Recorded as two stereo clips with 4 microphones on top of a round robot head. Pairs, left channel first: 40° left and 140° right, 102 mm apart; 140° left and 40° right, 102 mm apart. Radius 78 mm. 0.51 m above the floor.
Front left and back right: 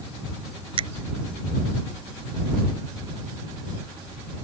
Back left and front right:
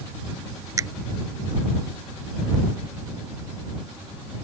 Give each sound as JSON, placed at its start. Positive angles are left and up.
{"t": 0.8, "sound": "a finger snap", "azimuth_deg": -100}